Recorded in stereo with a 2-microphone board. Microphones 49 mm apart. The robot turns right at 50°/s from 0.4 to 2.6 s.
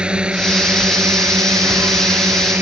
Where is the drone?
20° right (ahead or behind); by 2.6 s 45° right (ahead or behind).